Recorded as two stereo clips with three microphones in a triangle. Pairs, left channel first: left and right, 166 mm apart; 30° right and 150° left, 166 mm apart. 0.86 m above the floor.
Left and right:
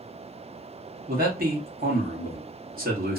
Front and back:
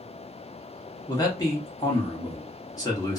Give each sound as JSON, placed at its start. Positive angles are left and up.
{"t": 1.1, "sound": "a man speaking", "azimuth_deg": -95, "distance_m": 1.3}